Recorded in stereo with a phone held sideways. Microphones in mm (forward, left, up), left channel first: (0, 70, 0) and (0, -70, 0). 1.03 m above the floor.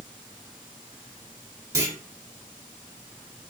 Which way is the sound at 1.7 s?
20° right (ahead or behind).